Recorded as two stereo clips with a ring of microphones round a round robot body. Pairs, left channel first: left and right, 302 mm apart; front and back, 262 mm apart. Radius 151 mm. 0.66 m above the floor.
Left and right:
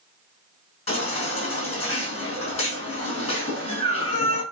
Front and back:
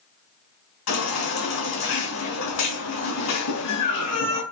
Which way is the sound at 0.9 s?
20° left.